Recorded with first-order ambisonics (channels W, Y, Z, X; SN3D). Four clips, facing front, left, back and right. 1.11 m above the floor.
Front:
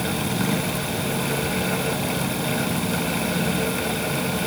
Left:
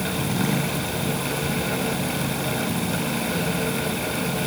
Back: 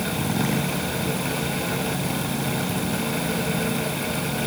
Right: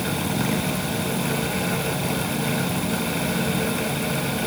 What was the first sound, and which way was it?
Only background noise.